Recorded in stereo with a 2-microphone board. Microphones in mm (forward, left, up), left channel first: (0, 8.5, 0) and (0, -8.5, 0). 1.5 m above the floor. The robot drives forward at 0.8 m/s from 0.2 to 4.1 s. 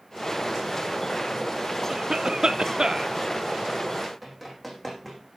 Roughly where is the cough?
Right.